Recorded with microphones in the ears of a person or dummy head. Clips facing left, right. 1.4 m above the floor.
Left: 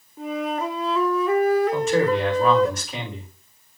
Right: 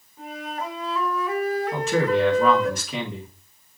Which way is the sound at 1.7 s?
60° right (ahead or behind).